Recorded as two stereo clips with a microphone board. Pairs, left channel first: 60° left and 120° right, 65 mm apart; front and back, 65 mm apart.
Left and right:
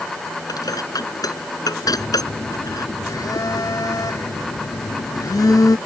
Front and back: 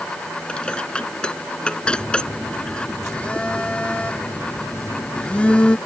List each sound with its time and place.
0.5 s dishes clattering: 75° left
1.9 s a phone buzzing: 75° left